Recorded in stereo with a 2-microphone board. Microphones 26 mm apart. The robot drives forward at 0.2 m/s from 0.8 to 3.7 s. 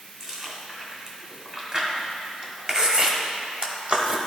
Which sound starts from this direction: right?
Chewing, at 0.2 s.